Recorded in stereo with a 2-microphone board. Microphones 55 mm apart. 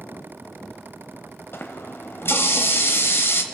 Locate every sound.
1.5 s a running tap: 45° left (ahead or behind), 0.9 m